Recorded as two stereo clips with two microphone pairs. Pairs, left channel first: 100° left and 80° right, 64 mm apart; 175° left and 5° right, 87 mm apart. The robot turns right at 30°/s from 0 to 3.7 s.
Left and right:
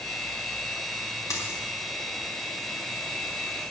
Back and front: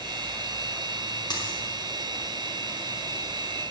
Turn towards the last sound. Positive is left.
turn(degrees=-150)